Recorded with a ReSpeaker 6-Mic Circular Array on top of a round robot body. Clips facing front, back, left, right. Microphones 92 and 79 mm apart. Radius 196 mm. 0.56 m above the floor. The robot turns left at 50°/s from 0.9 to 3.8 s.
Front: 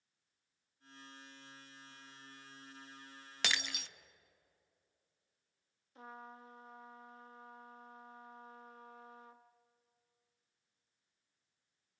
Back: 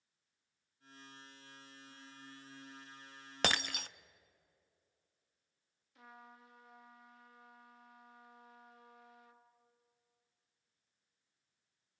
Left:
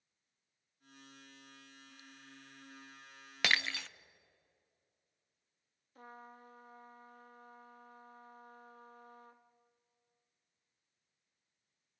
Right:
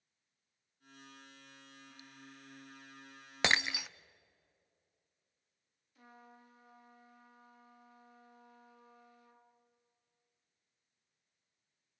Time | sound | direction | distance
3.4 | breaking glass | 150° right | 0.6 m
6.0 | a trumpet | 50° left | 1.4 m